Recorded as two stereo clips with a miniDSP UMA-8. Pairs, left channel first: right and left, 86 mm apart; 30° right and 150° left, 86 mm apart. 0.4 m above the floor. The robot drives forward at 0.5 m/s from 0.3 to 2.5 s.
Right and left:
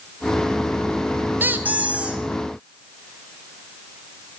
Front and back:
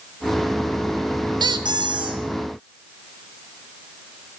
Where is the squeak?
155° left, 0.5 m; by 2.2 s 165° left, 0.9 m.